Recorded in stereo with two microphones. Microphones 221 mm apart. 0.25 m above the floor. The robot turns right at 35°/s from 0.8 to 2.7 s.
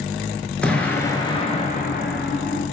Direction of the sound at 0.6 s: 5° left.